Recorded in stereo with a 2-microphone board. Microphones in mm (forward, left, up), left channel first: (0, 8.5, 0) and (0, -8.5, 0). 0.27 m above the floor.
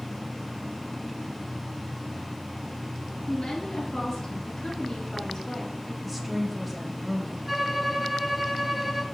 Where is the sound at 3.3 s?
30° left (ahead or behind), 2.5 m.